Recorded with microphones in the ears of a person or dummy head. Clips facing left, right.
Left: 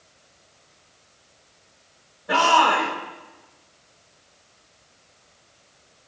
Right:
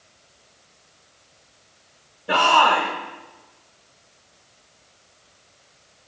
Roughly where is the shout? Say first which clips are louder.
Right 1 dB; right.